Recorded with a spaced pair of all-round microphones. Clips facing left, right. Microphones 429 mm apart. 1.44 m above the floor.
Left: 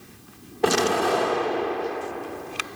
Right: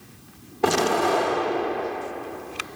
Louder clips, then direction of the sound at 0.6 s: Even; 20° right (ahead or behind).